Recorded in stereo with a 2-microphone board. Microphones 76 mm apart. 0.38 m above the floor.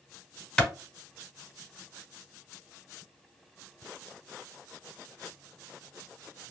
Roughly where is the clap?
Centre.